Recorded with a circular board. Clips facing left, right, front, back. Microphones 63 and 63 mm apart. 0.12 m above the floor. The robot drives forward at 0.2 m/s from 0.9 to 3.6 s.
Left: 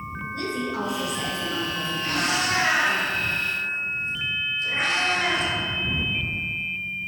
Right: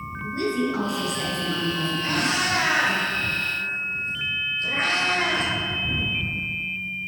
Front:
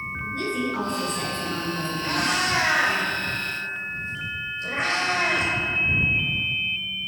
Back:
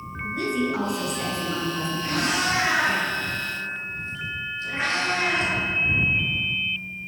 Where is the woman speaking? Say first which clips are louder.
Right 5 dB, back 3 dB; 110° right, 1.4 m; by 3.0 s 135° right, 1.6 m.